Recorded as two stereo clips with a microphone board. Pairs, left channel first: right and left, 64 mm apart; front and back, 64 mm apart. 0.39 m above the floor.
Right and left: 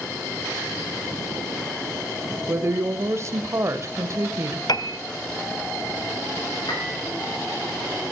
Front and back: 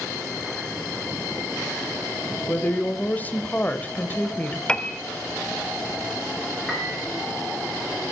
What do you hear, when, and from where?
2.5 s a woman speaking: 60° left, 1.4 m
4.7 s a piano: 75° right, 1.0 m
6.7 s a piano: 100° right, 6.5 m